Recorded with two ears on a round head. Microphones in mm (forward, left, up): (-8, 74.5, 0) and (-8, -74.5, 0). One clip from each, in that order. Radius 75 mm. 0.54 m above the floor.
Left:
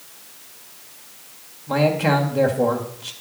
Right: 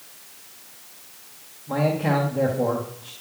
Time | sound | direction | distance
1.7 | a man speaking | 65° left (ahead or behind) | 2.5 m